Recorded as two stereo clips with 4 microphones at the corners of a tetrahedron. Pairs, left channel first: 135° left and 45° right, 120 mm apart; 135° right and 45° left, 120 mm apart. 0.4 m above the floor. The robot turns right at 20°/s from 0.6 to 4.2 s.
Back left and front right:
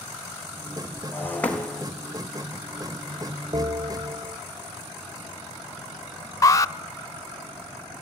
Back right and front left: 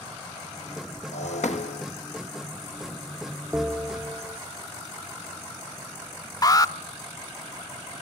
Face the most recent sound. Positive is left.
turn(degrees=180)